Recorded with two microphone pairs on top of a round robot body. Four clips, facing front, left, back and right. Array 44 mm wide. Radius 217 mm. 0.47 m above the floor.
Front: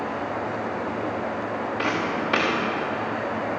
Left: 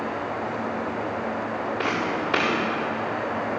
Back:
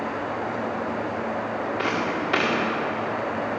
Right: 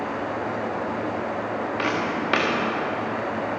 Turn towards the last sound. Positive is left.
turn(degrees=-90)